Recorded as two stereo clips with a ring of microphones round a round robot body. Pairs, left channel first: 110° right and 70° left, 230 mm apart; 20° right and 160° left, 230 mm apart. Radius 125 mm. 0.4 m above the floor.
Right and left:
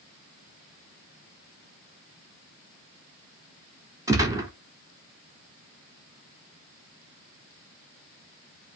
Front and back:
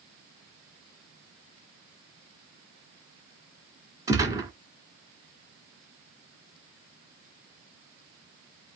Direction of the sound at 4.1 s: 115° left.